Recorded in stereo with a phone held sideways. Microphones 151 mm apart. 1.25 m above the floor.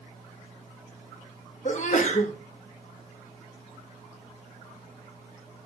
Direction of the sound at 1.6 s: 50° left (ahead or behind).